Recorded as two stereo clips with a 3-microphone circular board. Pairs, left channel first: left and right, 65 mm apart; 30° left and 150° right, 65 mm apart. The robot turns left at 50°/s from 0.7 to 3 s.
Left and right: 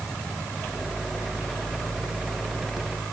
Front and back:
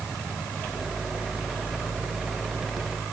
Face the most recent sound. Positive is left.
No sound to turn to.